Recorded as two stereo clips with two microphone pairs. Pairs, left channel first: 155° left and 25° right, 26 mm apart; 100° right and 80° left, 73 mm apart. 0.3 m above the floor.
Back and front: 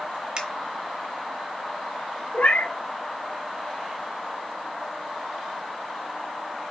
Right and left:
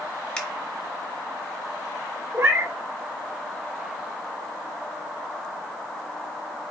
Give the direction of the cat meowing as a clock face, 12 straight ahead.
7 o'clock.